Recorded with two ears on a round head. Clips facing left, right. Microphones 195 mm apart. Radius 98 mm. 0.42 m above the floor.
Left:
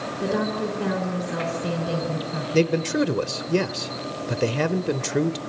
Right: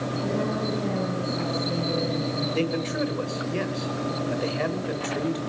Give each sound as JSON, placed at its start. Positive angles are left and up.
{"t": 0.2, "sound": "a woman speaking", "side_deg": 75, "distance_m": 5.0}
{"t": 2.5, "sound": "a man speaking", "side_deg": 55, "distance_m": 1.2}